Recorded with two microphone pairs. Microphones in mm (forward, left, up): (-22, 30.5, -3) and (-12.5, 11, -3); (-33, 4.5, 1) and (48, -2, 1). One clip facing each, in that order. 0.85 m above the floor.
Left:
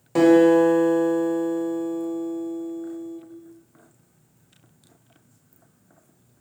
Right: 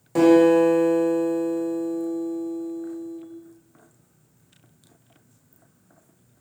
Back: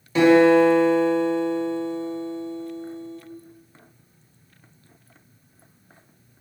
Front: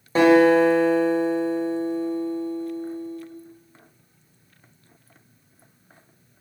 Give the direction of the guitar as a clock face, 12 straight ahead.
11 o'clock.